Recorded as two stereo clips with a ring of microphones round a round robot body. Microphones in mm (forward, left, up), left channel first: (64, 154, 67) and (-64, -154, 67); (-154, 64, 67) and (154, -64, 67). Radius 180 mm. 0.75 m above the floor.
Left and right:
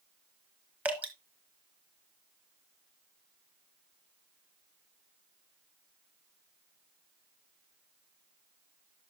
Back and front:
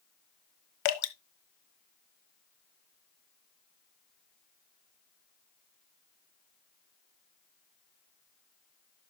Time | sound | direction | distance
0.8 | dripping | 160° left | 1.2 m